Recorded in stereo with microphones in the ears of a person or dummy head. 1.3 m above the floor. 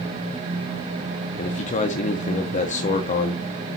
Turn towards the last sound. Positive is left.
turn(degrees=35)  # may be behind; listen again after turning